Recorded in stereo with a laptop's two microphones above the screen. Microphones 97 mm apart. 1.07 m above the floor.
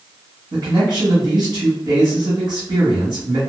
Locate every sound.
0.5 s a man speaking: 50° right (ahead or behind), 1.6 m